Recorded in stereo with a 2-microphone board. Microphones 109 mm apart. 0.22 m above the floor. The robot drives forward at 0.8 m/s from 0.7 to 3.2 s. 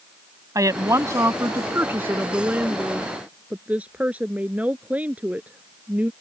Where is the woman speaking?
30° right (ahead or behind); by 6.1 s 15° right (ahead or behind).